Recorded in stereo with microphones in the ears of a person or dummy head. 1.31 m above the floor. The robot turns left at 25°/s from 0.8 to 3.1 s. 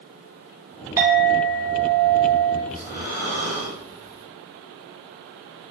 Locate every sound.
1.0 s a clink: 20° right, 0.8 m; by 2.6 s 60° right, 0.8 m
2.7 s breathing: 15° right (ahead or behind), 1.5 m; by 4.2 s 20° right (ahead or behind), 1.5 m